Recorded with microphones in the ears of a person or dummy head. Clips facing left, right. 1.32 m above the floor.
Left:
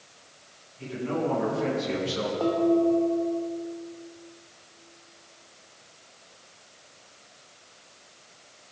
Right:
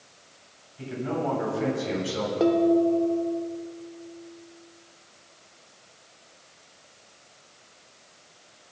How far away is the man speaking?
About 7.5 m.